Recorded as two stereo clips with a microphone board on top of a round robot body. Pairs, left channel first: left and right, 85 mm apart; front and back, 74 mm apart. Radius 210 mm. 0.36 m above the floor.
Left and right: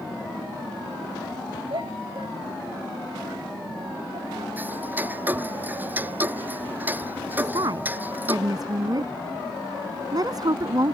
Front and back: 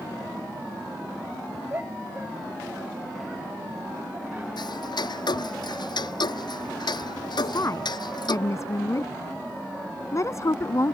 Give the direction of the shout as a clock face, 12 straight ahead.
4 o'clock.